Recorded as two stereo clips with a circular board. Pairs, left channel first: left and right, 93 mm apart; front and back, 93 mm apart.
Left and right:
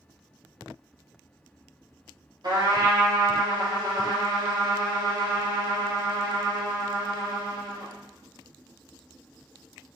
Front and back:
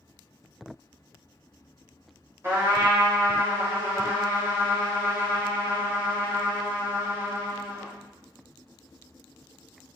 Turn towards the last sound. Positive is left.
turn(degrees=-120)